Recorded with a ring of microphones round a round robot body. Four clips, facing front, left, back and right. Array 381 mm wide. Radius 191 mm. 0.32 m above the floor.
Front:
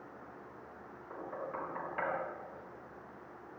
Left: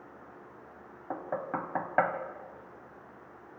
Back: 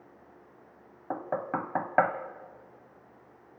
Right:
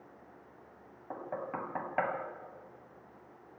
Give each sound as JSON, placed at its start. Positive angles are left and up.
{"t": 1.1, "sound": "knocking", "azimuth_deg": 165, "distance_m": 1.5}